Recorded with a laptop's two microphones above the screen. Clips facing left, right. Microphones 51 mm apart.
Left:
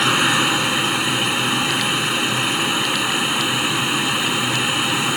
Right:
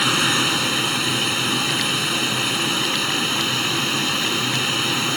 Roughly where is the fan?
Centre.